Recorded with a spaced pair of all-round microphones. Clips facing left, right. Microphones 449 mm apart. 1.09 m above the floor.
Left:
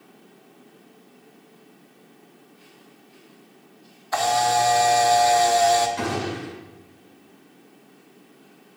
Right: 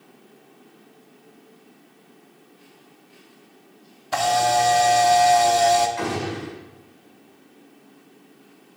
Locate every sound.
4.1 s a camera shutter: 50° right (ahead or behind), 1.1 m
6.0 s a gunshot: 55° left (ahead or behind), 4.5 m